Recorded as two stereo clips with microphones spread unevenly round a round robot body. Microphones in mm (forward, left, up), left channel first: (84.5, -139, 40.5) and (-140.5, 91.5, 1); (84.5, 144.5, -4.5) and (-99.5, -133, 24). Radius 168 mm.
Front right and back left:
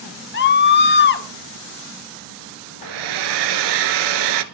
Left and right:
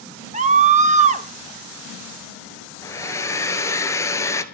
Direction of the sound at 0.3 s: 70° right.